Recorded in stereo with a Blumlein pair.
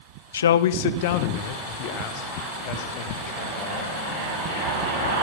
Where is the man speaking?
70° left, 0.5 m; by 3.9 s 40° left, 3.5 m.